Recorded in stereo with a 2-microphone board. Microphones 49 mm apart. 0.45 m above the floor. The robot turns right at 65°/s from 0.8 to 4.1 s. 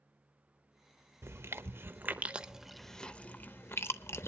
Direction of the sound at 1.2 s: 60° right (ahead or behind).